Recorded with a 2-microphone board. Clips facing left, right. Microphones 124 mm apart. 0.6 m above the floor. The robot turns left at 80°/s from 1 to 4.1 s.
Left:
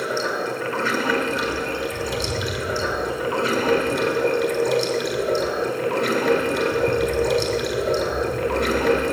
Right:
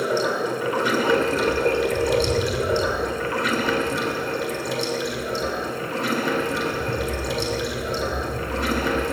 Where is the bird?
55° right (ahead or behind), 6 m; by 9.0 s 80° left, 6 m.